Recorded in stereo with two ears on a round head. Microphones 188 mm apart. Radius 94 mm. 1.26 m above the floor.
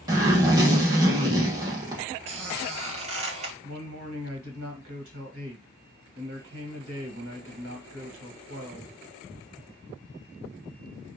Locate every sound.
0.1 s a zipper: 20° right (ahead or behind), 0.9 m
2.3 s a squeak: 30° right (ahead or behind), 0.9 m
3.6 s a man speaking: 75° right (ahead or behind), 1.3 m